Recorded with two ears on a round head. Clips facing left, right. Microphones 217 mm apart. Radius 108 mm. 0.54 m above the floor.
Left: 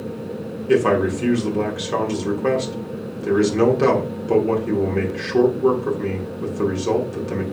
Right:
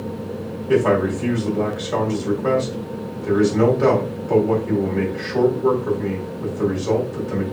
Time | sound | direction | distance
0.7 | a man speaking | 45° left (ahead or behind) | 1.2 m